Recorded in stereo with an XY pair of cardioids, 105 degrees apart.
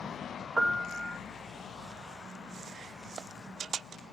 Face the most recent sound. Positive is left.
turn(degrees=-20)